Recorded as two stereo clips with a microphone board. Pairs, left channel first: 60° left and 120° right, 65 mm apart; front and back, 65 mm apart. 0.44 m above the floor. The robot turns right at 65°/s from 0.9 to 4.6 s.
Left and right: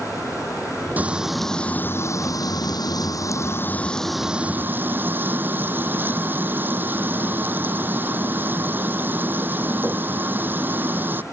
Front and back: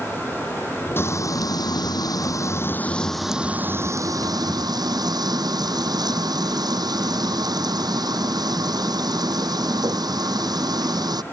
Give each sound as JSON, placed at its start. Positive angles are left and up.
{"t": 1.0, "sound": "frying", "azimuth_deg": -55}